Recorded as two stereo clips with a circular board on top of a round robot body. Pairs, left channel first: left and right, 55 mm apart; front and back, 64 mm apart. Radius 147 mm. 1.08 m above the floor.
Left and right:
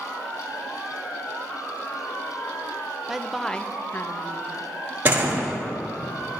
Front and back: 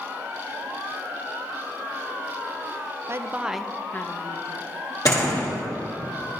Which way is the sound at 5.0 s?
35° right.